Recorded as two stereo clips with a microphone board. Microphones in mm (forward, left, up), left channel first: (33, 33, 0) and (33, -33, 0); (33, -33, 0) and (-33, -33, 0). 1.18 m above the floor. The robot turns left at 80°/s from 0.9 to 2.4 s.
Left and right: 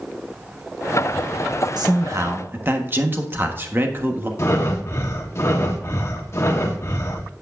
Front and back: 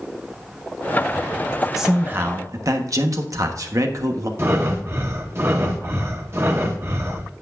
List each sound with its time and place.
1.8 s a man speaking: 95° right, 1.3 m; by 4.3 s 145° right, 1.3 m
4.4 s breathing: 135° left, 1.2 m